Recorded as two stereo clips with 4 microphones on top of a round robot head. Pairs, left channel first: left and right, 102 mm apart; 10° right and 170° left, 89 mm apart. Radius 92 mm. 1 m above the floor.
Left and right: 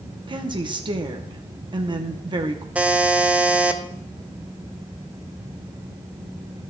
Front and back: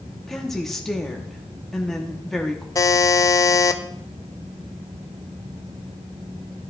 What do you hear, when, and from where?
0.3 s a woman speaking: 90° right, 0.9 m
2.8 s a buzzer: 20° right, 0.6 m